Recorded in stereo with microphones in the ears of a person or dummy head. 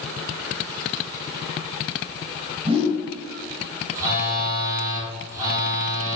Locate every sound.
2.6 s a whoosh: 35° right (ahead or behind), 1.2 m
4.0 s a phone buzzing: 20° right (ahead or behind), 0.8 m